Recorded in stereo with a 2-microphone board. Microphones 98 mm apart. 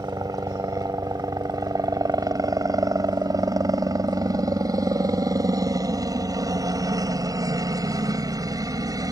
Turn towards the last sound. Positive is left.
turn(degrees=-35)  # may be behind; listen again after turning